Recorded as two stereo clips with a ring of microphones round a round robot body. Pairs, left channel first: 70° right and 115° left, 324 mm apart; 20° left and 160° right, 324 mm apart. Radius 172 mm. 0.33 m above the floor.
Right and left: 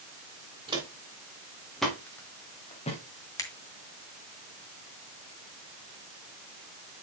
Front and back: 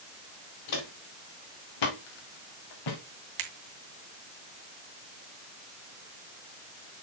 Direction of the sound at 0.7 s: 35° left.